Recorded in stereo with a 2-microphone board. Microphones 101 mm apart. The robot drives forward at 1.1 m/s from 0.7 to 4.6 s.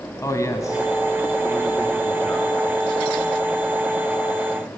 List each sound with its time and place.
0.2 s a man speaking: 30° left (ahead or behind), 1.4 m; by 3.0 s 10° left (ahead or behind), 3.5 m